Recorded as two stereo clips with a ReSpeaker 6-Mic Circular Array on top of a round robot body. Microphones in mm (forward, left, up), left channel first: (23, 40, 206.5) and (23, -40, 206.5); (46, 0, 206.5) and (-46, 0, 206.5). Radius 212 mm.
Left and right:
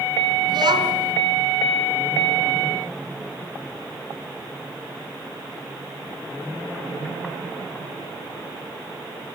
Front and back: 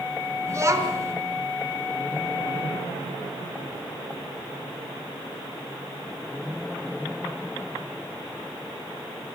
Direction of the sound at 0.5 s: 120° right.